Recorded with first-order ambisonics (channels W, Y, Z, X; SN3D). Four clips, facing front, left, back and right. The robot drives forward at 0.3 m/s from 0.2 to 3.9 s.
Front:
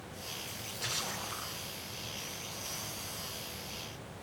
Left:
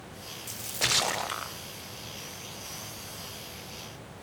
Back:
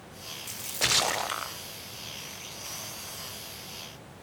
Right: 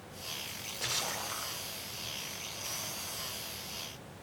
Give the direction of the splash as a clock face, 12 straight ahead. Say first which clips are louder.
Left 10 dB, back 13 dB; 7 o'clock.